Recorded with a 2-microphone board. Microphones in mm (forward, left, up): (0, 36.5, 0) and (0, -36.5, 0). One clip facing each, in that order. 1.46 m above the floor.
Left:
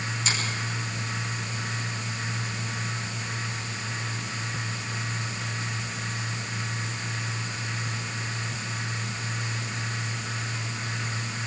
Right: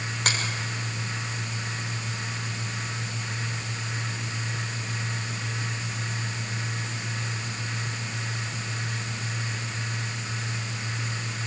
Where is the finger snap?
65° right (ahead or behind), 6.5 m.